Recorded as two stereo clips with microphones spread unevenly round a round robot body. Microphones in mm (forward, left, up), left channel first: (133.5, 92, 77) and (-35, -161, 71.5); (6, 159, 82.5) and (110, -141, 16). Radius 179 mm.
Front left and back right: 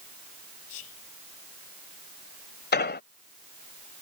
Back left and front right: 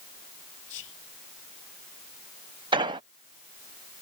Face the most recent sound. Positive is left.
turn(degrees=0)